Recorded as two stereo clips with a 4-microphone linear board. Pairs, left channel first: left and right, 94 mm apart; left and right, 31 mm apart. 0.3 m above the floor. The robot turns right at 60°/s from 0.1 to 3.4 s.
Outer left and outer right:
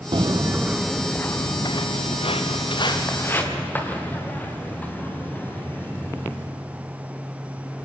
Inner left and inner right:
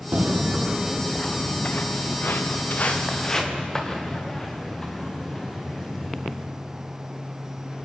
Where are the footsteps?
55° right (ahead or behind), 0.5 m; by 6.4 s 15° left (ahead or behind), 5 m.